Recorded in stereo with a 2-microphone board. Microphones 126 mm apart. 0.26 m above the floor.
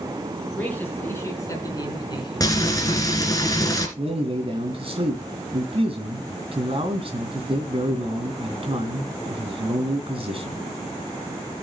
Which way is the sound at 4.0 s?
50° right (ahead or behind).